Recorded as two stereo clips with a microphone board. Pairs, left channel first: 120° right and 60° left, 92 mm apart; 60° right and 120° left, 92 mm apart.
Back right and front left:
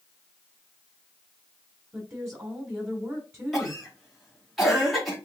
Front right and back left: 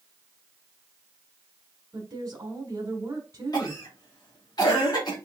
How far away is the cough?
About 2.5 m.